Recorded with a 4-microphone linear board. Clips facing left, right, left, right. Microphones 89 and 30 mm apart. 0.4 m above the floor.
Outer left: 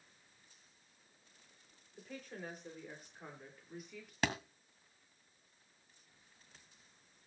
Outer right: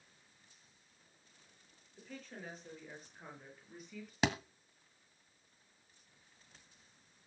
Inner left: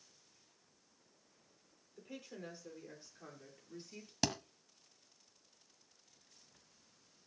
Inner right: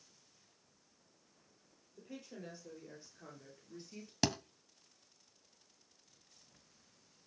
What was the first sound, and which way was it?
A woman speaking, 10° left (ahead or behind).